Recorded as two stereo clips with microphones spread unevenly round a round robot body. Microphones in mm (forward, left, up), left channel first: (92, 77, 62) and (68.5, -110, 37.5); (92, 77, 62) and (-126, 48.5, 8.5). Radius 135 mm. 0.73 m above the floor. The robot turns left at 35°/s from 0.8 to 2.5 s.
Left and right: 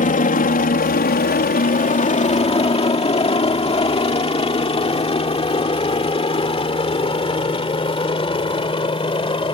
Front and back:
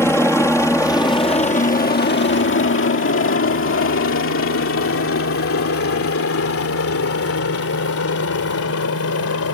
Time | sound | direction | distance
0.0 | a helicopter | 95° left | ?